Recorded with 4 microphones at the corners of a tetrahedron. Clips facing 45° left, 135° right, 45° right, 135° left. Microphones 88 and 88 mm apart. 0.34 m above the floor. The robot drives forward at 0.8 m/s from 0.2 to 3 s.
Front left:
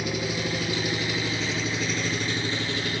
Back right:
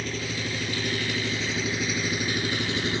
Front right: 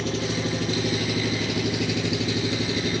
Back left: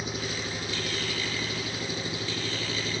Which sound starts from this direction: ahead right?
An engine running, at 0.0 s.